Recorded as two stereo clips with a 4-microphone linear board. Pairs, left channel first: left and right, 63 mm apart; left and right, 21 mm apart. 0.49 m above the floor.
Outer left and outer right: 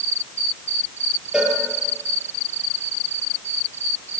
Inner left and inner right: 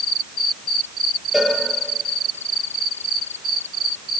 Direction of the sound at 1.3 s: 10° right (ahead or behind).